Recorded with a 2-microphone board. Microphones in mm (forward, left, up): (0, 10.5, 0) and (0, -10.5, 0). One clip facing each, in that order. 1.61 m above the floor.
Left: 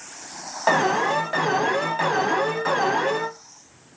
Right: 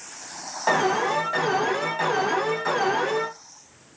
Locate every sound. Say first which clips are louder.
0.7 s an alarm: left 2 dB; 15° left (ahead or behind), 0.9 m